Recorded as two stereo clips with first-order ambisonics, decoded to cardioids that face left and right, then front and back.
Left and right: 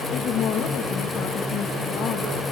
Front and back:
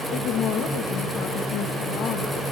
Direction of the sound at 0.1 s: 40° left.